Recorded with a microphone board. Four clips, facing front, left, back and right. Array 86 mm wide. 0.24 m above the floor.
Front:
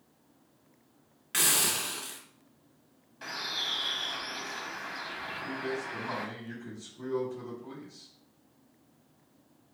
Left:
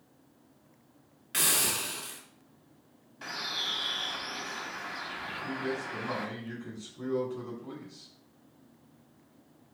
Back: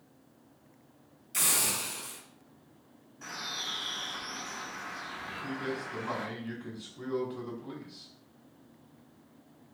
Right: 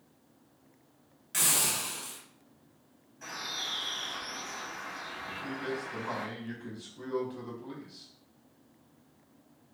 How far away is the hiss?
About 1.3 m.